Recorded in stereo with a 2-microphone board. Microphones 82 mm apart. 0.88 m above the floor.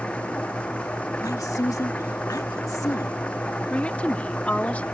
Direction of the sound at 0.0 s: 15° left (ahead or behind).